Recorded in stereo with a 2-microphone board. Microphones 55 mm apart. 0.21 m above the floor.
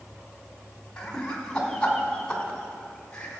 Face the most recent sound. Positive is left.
turn(degrees=20)  # may be behind; listen again after turning